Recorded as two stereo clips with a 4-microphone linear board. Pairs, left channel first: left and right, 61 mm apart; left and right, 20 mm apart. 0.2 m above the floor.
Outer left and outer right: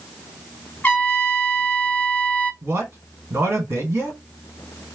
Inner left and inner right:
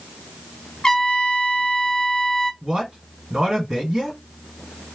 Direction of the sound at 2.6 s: 45° right (ahead or behind).